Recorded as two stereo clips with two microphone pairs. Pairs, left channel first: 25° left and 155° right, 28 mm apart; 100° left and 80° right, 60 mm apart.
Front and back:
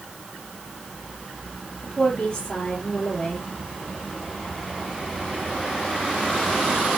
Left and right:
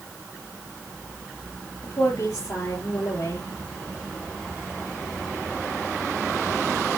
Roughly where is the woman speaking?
Left.